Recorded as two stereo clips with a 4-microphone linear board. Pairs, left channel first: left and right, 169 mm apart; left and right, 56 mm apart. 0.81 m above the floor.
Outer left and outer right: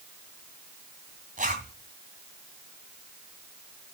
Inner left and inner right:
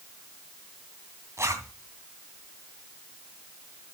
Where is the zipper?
50° right (ahead or behind), 2.5 m.